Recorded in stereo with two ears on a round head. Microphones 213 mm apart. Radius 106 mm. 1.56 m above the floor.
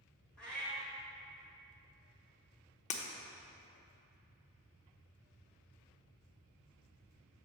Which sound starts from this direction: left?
Breaking glass, at 2.9 s.